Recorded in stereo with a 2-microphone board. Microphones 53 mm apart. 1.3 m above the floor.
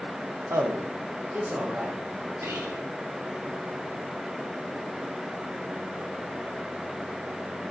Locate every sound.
0.5 s a man speaking: 65° right (ahead or behind), 1.0 m; by 2.0 s 35° right (ahead or behind), 2.5 m
2.4 s whispering: 60° right (ahead or behind), 4 m